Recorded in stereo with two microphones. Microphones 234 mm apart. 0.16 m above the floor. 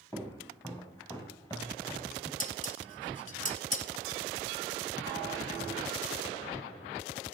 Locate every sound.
0.1 s footsteps: 10° left (ahead or behind), 4.5 m; by 2.3 s 15° left (ahead or behind), 3.5 m
2.4 s dishes clattering: 35° left (ahead or behind), 1.1 m